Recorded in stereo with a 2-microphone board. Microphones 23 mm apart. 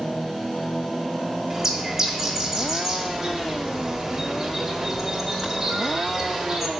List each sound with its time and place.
1.5 s a bird: 15° right (ahead or behind), 1.1 m